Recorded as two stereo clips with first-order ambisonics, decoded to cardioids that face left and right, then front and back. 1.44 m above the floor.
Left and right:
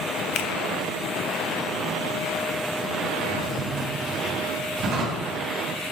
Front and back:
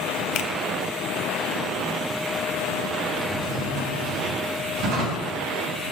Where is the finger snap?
40° left, 0.6 m.